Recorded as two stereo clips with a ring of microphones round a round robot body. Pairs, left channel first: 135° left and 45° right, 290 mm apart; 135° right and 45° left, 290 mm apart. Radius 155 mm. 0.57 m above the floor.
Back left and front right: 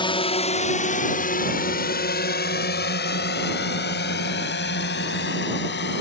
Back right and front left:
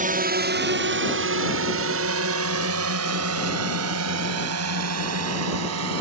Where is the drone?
75° left; by 6.0 s 80° left.